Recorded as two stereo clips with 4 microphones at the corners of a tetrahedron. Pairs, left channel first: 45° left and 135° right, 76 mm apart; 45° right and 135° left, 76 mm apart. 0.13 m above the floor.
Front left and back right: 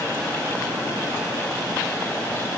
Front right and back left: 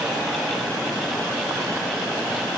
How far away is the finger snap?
I don't hear a finger snap.